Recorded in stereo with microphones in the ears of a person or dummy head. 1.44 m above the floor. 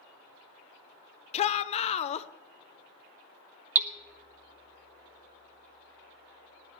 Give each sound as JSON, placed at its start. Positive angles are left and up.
{"t": 1.3, "sound": "a shout", "side_deg": 35, "distance_m": 0.9}
{"t": 3.8, "sound": "hammering", "side_deg": -10, "distance_m": 0.8}